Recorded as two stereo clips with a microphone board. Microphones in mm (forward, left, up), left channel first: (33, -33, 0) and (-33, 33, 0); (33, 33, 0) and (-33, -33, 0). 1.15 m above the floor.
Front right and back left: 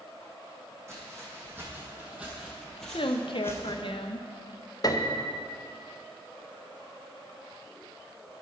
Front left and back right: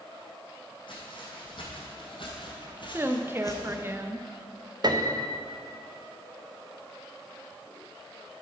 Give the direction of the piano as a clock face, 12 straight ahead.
3 o'clock.